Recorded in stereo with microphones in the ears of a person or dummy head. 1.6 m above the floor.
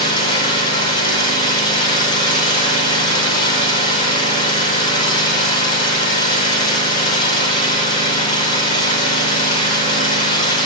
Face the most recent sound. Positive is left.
turn(degrees=40)  # may be behind; listen again after turning